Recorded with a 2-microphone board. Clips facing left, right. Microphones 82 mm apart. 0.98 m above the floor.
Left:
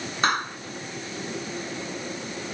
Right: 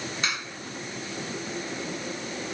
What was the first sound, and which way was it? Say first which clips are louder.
A clap: left 11 dB; 45° left (ahead or behind).